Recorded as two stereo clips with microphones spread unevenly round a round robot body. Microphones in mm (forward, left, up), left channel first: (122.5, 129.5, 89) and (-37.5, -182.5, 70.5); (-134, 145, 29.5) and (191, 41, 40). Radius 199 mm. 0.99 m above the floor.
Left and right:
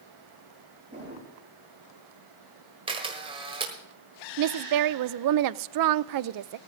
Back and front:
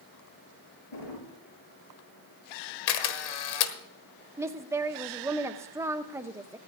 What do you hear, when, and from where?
0.9 s a drawer: 165° left, 6 m
2.9 s a camera shutter: 165° left, 1.3 m
4.4 s a woman speaking: 100° right, 0.5 m